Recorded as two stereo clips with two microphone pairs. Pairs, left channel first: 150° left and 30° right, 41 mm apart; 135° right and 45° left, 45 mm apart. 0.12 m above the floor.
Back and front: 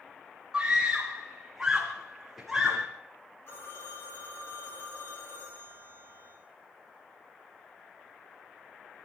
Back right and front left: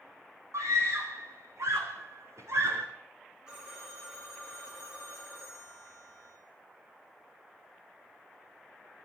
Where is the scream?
45° left, 6 m; by 2.9 s 60° left, 6.5 m.